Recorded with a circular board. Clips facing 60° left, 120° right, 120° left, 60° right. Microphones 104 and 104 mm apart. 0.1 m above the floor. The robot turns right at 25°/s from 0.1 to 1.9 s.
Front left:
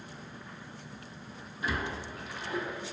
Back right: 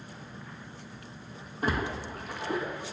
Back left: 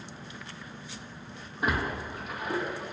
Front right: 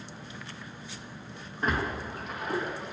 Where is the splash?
160° right, 0.5 m; by 2.9 s 150° right, 0.5 m.